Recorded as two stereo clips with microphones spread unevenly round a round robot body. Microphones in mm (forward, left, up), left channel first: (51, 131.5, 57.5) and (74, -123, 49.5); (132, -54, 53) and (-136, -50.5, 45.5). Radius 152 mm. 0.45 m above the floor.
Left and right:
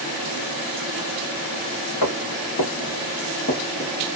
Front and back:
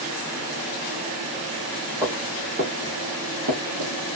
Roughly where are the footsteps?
Left.